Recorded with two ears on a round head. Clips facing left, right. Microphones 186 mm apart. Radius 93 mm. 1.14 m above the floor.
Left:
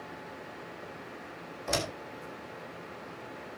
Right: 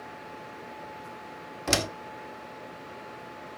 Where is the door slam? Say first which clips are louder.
Right 4 dB; 80° right, 1.9 m.